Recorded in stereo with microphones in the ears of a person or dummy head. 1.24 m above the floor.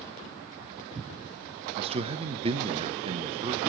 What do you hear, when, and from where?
1.8 s a man speaking: 30° right (ahead or behind), 0.7 m